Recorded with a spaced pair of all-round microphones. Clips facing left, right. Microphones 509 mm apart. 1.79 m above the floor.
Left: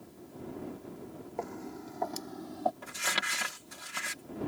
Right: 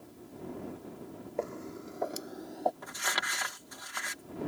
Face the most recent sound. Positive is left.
turn(degrees=50)  # may be behind; listen again after turning